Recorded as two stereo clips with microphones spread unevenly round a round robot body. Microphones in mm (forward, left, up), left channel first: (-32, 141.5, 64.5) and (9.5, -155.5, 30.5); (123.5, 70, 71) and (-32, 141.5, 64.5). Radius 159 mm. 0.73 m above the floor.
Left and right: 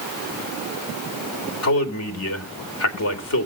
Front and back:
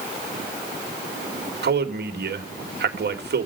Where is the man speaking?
140° left, 2.5 m.